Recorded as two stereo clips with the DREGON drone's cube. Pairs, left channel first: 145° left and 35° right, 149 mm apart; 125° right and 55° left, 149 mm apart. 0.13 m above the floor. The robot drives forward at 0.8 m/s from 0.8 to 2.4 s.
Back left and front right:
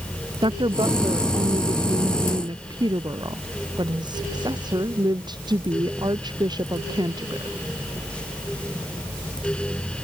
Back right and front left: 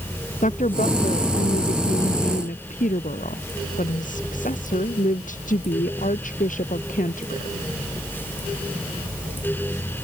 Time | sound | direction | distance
0.4 | a woman speaking | 90° right | ?